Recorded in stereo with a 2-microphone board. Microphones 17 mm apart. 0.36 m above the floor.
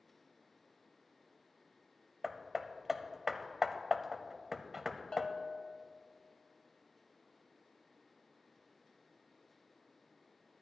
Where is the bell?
50° left (ahead or behind), 1.2 m.